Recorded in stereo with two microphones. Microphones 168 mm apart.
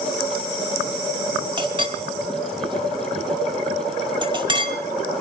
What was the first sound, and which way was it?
A clink, 30° right (ahead or behind).